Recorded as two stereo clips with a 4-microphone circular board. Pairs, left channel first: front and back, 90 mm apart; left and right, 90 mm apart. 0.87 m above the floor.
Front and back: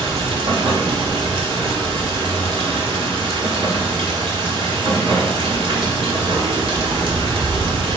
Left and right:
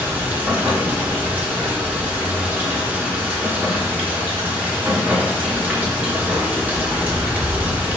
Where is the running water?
160° right, 1.0 m.